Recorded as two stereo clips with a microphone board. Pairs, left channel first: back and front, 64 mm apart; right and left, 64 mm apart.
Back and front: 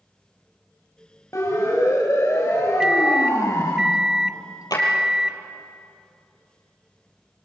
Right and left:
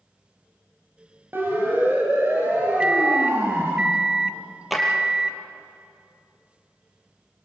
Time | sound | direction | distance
1.3 | a siren | 145° left | 4.5 m
2.8 | a microwave | 55° left | 0.7 m
4.7 | a drawer | straight behind | 4.5 m